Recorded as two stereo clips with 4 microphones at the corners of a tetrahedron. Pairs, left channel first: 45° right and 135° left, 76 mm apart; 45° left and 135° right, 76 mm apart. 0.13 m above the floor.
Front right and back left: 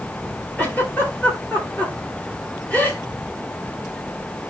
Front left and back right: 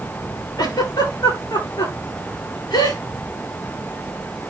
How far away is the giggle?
About 9.5 m.